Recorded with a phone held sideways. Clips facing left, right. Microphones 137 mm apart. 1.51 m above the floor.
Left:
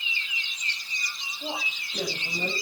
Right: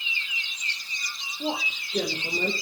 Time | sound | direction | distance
1.4 | a woman speaking | 75° right (ahead or behind) | 6 m